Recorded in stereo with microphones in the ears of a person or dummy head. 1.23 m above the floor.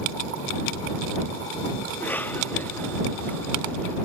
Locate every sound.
1.9 s a cough: 10° left (ahead or behind)